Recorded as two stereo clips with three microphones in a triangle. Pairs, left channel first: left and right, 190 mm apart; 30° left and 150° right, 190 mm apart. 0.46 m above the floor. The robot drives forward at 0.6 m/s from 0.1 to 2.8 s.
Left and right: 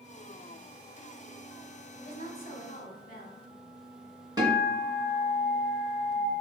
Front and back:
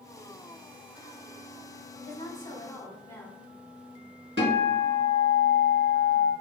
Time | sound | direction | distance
2.0 | a woman speaking | 70° left | 1.1 m
4.4 | a guitar | 160° right | 1.6 m